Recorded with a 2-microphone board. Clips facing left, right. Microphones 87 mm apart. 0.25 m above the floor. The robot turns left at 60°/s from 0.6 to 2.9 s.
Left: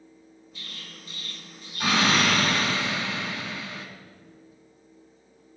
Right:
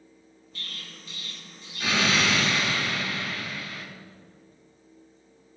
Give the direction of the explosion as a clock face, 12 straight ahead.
6 o'clock.